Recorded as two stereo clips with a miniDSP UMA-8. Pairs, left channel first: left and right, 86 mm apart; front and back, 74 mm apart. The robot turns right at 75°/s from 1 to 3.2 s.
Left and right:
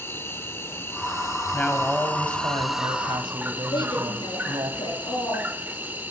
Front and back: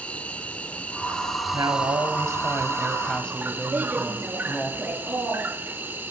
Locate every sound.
0.0 s an insect: 55° left, 0.9 m; by 6.1 s 140° right, 0.9 m
1.5 s a woman speaking: 160° left, 2.5 m; by 4.7 s 75° right, 2.5 m
3.7 s a woman speaking: 115° left, 8 m